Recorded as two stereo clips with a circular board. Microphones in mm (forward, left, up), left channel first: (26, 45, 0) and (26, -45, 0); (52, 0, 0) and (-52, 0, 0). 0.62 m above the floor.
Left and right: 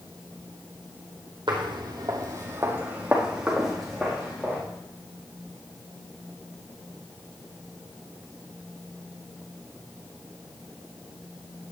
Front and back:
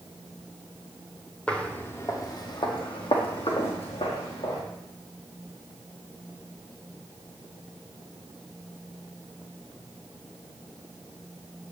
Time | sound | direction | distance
1.5 | footsteps | 80° right | 1.6 m